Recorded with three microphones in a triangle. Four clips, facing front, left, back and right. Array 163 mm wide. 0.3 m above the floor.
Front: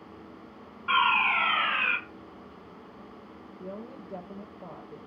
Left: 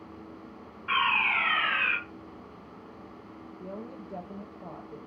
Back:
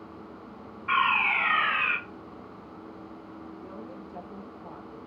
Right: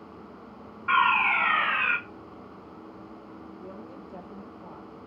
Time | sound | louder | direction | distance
0.9 | a fire alarm | right 5 dB, front 1 dB | 70° right | 3 m
3.6 | a woman speaking | left 5 dB, front 1 dB | 20° left | 6 m